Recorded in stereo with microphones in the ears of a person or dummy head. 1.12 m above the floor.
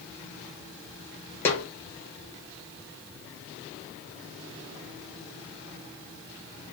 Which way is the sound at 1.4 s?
10° left (ahead or behind).